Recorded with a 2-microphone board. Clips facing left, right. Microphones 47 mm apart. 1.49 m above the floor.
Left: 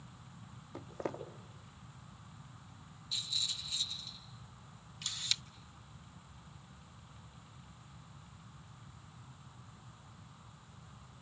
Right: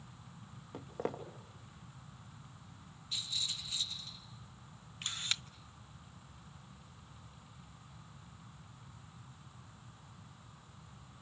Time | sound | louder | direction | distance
0.7 | footsteps | right 1 dB | 60° right (ahead or behind) | 3 m
3.1 | a rattle | left 1 dB | 40° right (ahead or behind) | 5 m
5.0 | a camera shutter | right 1 dB | 35° right (ahead or behind) | 0.9 m